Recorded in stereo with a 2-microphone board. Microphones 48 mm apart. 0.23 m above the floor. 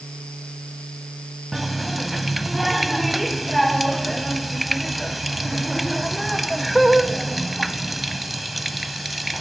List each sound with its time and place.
1.5 s a running tap: centre (ahead or behind), 0.9 m